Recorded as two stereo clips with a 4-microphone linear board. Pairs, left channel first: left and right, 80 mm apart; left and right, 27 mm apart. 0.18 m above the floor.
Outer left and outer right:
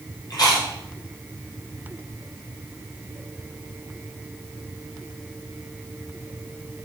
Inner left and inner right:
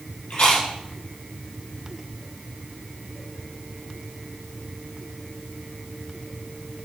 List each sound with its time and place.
0.3 s chewing: 50° left (ahead or behind), 6.5 m